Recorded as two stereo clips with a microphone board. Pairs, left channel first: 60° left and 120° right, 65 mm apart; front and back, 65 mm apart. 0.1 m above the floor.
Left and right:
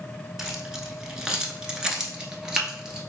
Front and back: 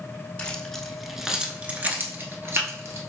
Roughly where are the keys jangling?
Ahead right.